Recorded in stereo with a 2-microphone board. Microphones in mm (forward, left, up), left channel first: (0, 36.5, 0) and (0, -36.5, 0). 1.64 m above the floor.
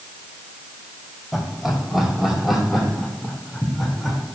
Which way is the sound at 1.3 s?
5° right (ahead or behind).